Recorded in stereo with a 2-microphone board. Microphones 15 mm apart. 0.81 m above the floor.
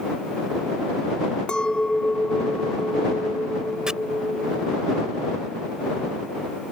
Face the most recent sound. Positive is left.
turn(degrees=-50)  # may be behind; listen again after turning